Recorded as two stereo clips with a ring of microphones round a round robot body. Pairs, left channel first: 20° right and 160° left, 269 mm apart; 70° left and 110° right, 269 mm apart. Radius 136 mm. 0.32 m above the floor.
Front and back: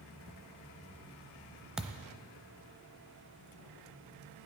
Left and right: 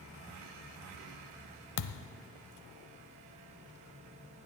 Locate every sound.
1.8 s a thud: 70° left, 0.8 m